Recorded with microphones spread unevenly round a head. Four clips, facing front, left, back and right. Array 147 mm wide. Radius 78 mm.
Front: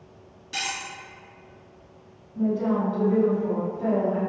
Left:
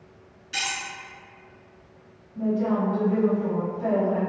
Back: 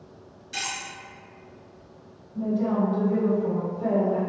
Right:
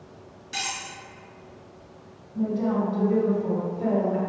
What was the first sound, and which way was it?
Cutlery clinking, 60° right.